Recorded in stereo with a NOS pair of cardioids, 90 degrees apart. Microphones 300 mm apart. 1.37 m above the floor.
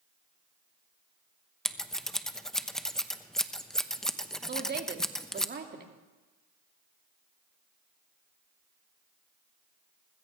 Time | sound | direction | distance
1.6 | scissors | straight ahead | 1.0 m
4.5 | a woman speaking | 35° right | 2.5 m